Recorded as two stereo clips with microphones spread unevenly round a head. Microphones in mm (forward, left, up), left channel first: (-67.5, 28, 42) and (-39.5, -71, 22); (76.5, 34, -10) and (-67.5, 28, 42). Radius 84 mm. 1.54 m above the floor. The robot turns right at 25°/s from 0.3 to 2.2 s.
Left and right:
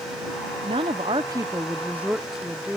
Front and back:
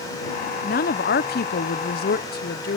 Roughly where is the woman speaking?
Ahead right.